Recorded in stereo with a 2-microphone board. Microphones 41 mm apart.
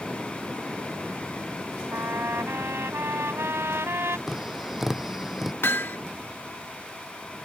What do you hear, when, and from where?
1.9 s a trumpet: 85° right
4.3 s tapping: 10° right (ahead or behind)
5.6 s hammering: 65° left (ahead or behind)